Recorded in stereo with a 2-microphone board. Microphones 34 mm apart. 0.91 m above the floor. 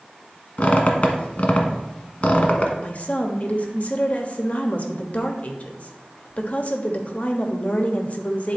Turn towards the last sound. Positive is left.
turn(degrees=45)  # may be behind; listen again after turning